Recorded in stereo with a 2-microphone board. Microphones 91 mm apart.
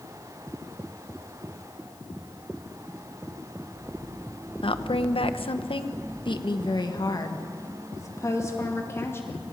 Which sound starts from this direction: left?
A woman speaking, at 4.6 s.